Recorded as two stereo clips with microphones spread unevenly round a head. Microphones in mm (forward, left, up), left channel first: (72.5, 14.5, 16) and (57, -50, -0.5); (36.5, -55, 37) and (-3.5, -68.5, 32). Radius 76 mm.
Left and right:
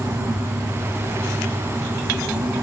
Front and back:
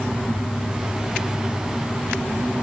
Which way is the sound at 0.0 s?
15° right.